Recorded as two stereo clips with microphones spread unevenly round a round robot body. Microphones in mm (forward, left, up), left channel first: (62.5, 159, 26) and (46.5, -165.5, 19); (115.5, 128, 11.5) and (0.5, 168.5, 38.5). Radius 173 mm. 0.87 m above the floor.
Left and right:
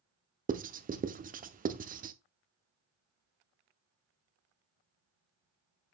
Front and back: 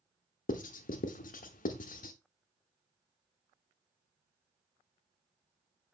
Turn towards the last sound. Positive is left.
turn(degrees=-25)